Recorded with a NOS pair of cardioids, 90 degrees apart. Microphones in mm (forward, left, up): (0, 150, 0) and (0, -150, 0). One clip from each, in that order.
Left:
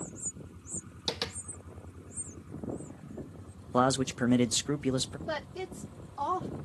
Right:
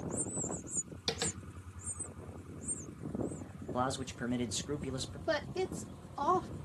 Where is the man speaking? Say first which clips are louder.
Left 9 dB; 50° left, 1.0 m.